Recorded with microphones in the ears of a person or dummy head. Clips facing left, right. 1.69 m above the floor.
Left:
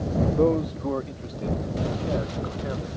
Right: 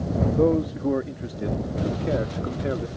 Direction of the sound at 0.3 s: Centre (ahead or behind).